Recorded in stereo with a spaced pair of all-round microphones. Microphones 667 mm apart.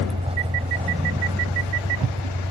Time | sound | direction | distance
0.0 | a vehicle | 10° right (ahead or behind) | ?